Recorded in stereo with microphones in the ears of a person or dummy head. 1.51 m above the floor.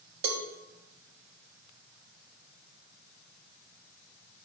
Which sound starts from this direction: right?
A cowbell, at 0.2 s.